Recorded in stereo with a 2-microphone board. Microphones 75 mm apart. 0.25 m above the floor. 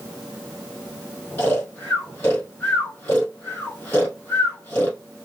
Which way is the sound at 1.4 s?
35° left (ahead or behind).